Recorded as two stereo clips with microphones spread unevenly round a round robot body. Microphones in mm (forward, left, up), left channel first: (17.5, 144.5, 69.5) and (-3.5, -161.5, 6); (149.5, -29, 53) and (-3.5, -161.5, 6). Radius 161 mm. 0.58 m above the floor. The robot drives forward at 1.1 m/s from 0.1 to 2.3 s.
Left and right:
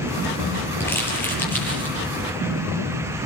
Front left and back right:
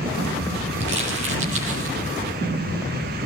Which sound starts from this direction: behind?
Crumpling, at 0.8 s.